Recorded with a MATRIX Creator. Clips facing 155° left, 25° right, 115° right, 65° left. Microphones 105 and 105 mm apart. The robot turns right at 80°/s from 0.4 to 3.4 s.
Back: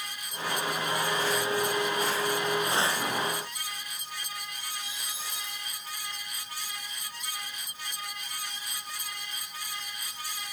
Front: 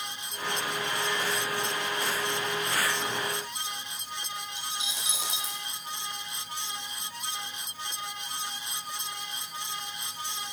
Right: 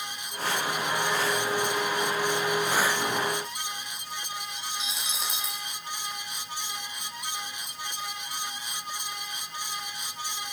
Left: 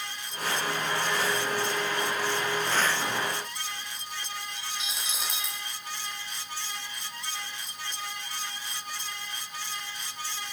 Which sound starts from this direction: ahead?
A dropped coin, at 4.6 s.